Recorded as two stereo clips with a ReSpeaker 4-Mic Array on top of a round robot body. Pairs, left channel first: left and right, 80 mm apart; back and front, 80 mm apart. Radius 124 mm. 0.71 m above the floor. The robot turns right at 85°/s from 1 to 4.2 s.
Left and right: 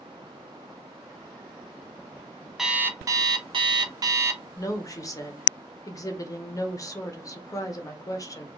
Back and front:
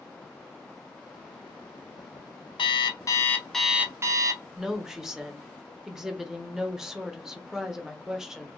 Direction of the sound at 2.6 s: 175° right.